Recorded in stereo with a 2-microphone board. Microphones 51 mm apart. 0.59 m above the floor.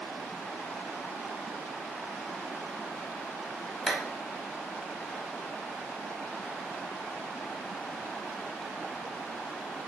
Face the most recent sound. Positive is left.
turn(degrees=5)  # may be behind; listen again after turning